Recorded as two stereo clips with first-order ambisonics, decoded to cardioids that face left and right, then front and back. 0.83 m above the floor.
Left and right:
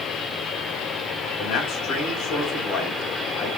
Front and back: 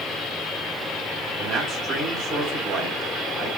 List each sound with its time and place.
1.4 s a man speaking: 130° left, 3.5 m